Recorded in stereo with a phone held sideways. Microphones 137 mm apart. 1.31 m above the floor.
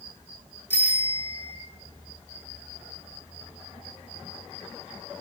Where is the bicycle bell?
15° left (ahead or behind), 3 m.